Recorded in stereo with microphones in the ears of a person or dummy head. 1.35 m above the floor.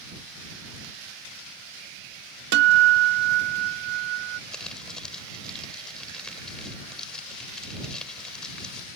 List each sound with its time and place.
2.5 s a guitar: 65° right (ahead or behind)
4.5 s crumpling: 5° left (ahead or behind)